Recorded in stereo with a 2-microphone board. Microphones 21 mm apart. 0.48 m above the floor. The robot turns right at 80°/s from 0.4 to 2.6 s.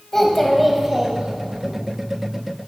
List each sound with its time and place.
0.1 s a child speaking: 165° left, 1.8 m; by 1.7 s 90° right, 1.8 m